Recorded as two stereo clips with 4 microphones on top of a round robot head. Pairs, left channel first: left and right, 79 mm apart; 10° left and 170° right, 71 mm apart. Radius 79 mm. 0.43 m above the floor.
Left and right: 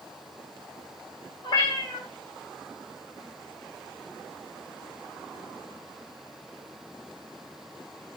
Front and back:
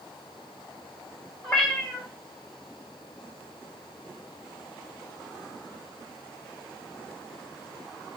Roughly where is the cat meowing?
Left.